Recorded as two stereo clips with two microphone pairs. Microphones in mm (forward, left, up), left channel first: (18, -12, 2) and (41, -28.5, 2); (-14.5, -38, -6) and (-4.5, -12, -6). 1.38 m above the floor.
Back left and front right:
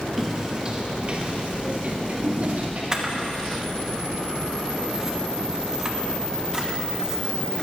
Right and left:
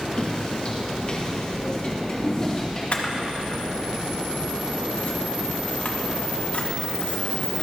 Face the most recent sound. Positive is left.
turn(degrees=-95)